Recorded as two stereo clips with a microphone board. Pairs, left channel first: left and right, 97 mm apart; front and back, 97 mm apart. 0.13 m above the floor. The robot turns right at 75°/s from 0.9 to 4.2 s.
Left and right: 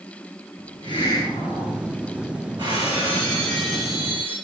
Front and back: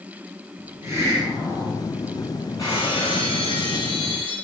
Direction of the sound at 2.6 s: 55° right.